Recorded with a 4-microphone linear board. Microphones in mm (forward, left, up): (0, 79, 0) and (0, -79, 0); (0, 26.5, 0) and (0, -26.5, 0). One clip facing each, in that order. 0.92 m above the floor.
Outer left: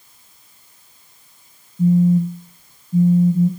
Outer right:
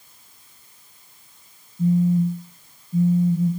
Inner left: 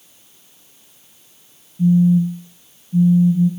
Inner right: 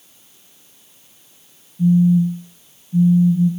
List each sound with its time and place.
1.8 s a phone buzzing: 25° left (ahead or behind), 0.5 m